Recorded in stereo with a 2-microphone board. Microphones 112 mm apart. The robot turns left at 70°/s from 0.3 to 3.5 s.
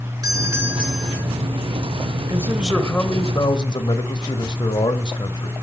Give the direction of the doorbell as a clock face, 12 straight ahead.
4 o'clock.